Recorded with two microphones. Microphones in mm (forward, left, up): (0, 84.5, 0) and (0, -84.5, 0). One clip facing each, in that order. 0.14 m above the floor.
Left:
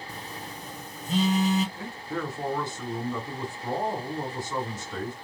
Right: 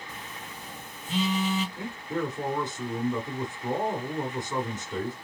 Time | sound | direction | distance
0.1 | a phone buzzing | 40° left (ahead or behind) | 0.8 m
1.8 | a man speaking | 20° right (ahead or behind) | 1.1 m